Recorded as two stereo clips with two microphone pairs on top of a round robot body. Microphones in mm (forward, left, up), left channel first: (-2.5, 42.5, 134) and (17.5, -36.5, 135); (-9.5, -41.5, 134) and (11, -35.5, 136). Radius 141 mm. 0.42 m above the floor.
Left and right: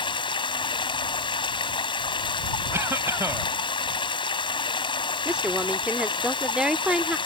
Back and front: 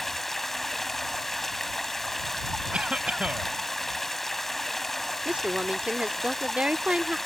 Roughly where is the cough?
Ahead.